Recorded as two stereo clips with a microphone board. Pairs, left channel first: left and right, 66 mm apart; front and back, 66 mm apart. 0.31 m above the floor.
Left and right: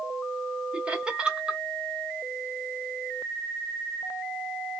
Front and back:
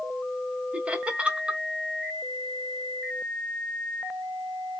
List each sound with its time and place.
0.7 s laughter: 140° right, 0.9 m